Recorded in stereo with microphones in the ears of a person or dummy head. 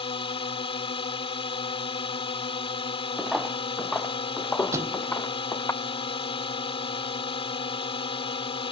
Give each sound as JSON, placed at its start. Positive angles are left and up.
{"t": 0.0, "sound": "a drone", "side_deg": 35}
{"t": 3.2, "sound": "footsteps", "side_deg": 5}
{"t": 4.7, "sound": "a thud", "side_deg": -25}